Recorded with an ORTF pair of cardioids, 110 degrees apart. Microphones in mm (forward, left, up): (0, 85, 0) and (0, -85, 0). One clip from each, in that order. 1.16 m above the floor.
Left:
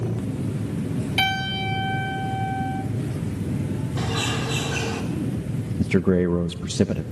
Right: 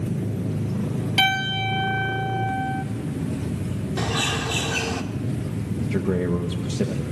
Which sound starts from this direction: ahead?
A bird, at 4.0 s.